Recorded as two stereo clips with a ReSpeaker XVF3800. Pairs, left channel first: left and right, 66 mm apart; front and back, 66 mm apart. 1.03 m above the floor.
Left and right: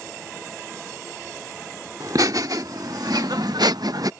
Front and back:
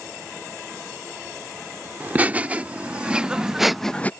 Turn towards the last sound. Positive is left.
turn(degrees=-65)